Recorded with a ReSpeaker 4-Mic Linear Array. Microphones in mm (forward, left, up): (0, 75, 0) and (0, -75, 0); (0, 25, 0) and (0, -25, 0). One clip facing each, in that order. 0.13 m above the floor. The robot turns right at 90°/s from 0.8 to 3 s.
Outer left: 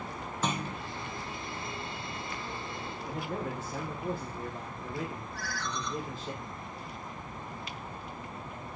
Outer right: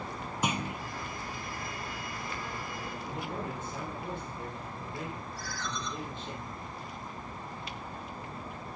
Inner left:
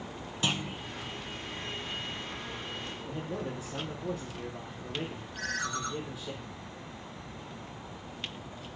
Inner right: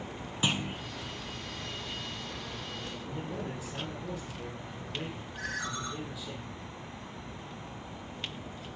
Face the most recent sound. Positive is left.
turn(degrees=60)  # may be behind; listen again after turning